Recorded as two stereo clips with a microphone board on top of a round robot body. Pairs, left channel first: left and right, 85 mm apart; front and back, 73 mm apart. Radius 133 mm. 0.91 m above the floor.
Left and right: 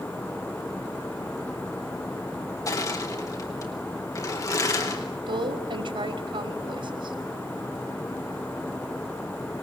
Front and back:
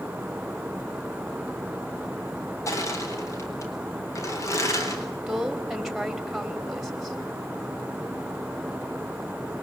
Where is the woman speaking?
90° right, 3.5 m.